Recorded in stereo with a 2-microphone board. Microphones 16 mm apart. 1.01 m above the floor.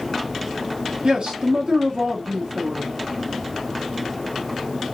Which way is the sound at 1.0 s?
80° right.